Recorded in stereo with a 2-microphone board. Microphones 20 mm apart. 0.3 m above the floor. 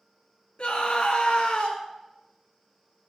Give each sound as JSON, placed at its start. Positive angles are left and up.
{"t": 0.6, "sound": "a scream", "side_deg": 65, "distance_m": 2.5}